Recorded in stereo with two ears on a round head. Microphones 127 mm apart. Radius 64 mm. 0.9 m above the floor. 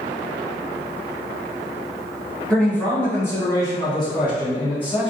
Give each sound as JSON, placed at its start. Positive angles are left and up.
{"t": 2.5, "sound": "a man speaking", "side_deg": 10, "distance_m": 1.2}